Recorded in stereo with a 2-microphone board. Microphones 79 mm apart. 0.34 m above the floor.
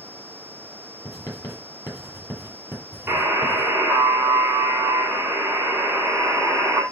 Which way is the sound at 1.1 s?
45° left (ahead or behind).